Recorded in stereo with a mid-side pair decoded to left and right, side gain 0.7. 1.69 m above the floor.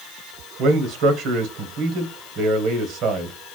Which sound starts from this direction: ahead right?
A man speaking, at 0.6 s.